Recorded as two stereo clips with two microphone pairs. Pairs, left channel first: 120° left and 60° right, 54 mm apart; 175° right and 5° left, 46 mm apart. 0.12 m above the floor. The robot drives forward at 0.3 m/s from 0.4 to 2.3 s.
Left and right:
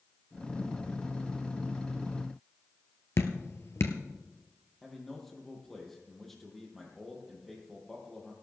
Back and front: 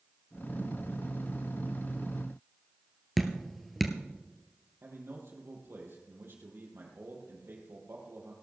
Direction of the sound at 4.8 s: 30° left.